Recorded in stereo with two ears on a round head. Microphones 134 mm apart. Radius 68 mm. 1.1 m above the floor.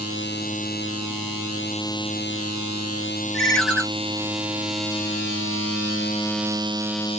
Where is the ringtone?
5° left (ahead or behind), 1.4 m.